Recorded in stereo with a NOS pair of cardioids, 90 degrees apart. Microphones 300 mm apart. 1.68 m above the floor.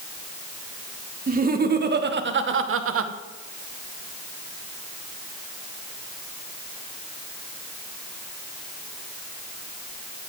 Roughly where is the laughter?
Ahead right.